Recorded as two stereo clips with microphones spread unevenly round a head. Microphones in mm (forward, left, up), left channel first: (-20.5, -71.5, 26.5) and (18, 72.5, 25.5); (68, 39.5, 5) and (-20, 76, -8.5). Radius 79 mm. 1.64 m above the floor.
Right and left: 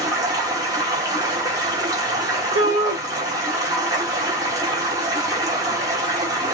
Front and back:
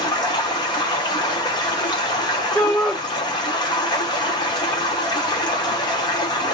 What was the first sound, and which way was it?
Running water, 10° left.